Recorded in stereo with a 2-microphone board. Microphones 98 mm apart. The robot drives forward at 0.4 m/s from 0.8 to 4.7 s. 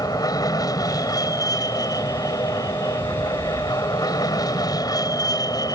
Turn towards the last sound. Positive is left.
turn(degrees=40)  # may be behind; listen again after turning